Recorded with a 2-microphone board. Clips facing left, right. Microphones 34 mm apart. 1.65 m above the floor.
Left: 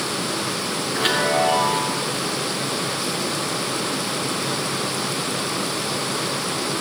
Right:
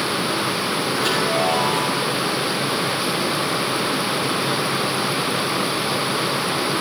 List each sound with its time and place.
0.9 s a chime: 75° left (ahead or behind), 4.5 m